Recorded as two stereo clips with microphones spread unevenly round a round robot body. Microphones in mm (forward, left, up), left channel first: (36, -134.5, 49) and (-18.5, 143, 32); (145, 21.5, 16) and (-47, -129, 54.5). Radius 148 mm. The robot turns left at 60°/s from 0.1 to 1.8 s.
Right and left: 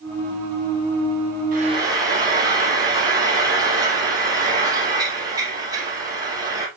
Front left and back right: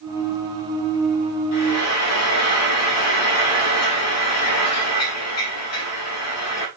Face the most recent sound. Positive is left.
turn(degrees=25)